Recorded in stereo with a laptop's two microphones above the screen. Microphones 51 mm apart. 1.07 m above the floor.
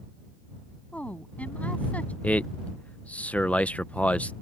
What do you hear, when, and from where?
0.9 s a woman speaking: 25° left (ahead or behind)
2.2 s a man speaking: 30° left (ahead or behind)